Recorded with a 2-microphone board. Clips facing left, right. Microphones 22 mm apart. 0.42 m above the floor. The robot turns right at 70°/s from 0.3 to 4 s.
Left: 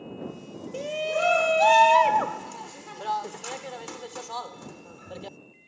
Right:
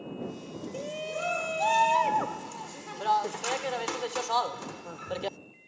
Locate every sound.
0.7 s a shout: 20° left (ahead or behind); by 5.4 s 30° right (ahead or behind)